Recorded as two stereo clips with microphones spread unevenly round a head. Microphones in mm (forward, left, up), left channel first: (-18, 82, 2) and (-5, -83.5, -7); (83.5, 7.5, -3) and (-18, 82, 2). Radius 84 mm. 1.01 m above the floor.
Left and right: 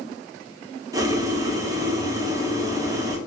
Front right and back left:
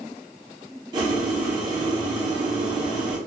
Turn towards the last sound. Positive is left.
turn(degrees=-150)